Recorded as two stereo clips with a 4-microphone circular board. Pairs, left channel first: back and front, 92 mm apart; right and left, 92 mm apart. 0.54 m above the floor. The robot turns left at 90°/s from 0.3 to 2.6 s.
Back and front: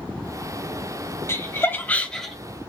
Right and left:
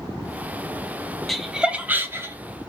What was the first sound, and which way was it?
Laughter, 175° right.